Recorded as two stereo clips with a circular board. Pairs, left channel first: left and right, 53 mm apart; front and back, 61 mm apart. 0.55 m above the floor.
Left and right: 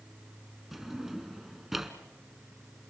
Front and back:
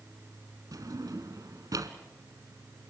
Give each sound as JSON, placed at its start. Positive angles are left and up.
{"t": 0.7, "sound": "a drawer", "azimuth_deg": -175, "distance_m": 1.7}